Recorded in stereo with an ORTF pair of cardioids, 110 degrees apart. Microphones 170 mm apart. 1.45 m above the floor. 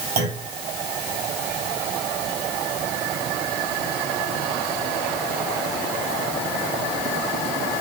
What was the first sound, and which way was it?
A clunk, 60° right.